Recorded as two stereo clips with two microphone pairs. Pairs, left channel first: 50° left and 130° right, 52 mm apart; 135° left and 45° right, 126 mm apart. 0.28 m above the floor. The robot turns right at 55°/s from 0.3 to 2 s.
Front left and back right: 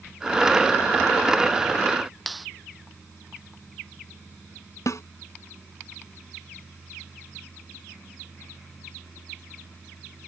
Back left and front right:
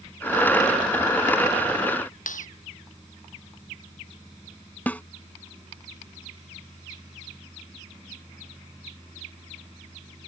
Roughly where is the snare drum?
Ahead left.